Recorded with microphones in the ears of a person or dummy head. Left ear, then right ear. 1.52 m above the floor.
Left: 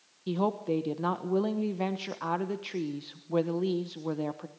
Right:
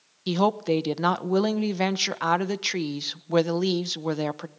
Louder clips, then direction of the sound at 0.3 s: Right 7 dB; 55° right (ahead or behind).